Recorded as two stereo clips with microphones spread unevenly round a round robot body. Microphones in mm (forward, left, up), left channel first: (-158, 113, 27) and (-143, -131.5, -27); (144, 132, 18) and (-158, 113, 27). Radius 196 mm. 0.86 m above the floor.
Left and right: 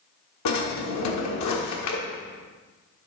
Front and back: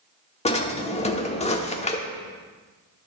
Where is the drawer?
75° left, 1.1 m.